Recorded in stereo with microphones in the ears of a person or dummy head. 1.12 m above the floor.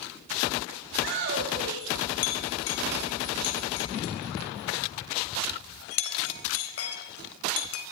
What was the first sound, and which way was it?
A shout, 55° right (ahead or behind).